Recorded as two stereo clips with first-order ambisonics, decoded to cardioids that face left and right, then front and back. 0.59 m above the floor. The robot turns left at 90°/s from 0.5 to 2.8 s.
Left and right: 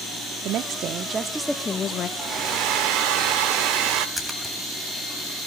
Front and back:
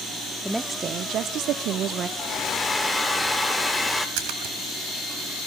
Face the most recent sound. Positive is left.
turn(degrees=180)